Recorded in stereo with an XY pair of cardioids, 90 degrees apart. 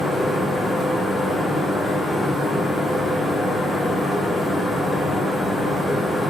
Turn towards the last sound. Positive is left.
turn(degrees=25)